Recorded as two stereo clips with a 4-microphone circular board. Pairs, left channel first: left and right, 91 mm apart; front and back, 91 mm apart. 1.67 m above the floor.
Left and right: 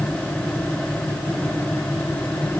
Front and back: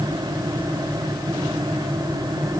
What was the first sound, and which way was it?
Only background noise.